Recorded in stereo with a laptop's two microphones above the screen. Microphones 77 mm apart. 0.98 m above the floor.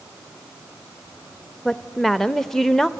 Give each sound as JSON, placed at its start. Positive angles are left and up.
{"t": 1.6, "sound": "a woman speaking", "side_deg": 5, "distance_m": 0.6}